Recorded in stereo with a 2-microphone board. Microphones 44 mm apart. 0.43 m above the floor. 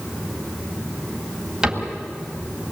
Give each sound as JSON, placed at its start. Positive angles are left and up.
{"t": 1.6, "sound": "a cupboard door", "side_deg": -15, "distance_m": 3.0}